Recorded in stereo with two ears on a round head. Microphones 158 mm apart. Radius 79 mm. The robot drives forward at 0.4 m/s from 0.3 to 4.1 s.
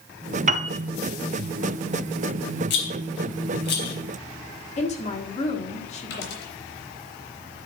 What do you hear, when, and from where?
0.5 s a piano: 40° right (ahead or behind), 0.6 m
2.7 s a rattle: 70° left (ahead or behind), 3.5 m; by 4.0 s 65° left (ahead or behind), 3.5 m
4.8 s a woman speaking: 40° left (ahead or behind), 1.6 m
6.1 s a dropped coin: 75° left (ahead or behind), 3.5 m